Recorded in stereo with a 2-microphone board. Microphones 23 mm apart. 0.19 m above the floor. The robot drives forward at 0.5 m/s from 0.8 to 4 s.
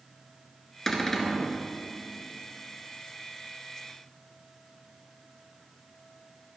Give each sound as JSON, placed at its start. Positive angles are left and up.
{"t": 0.9, "sound": "a cupboard door", "side_deg": 15, "distance_m": 1.4}